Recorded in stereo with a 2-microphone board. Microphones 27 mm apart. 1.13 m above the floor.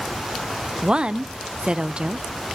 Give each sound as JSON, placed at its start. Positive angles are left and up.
{"t": 0.8, "sound": "a woman speaking", "side_deg": -40, "distance_m": 0.5}